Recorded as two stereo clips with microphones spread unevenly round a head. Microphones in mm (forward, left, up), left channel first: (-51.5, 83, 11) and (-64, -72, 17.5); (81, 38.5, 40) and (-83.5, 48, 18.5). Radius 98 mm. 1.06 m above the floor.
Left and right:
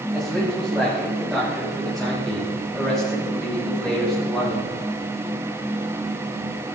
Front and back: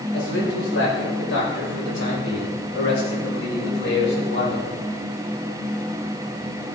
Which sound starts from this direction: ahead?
A man speaking, at 0.1 s.